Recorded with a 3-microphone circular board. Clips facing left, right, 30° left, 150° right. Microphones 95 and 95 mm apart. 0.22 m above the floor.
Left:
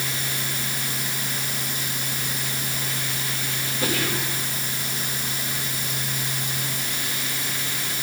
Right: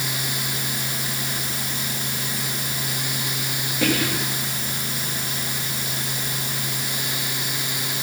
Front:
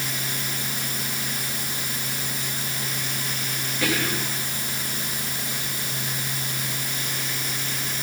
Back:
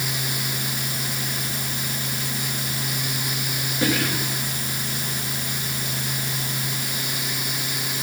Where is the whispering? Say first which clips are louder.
Right 4 dB, back 2 dB; 90° right, 4 m.